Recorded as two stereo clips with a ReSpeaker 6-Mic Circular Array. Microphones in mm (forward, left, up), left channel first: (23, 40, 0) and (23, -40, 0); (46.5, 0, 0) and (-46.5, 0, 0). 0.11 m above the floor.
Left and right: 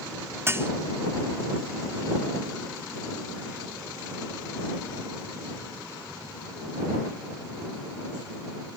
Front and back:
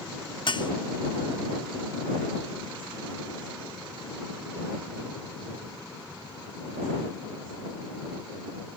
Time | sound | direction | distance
0.5 | dishes clattering | 30° right | ?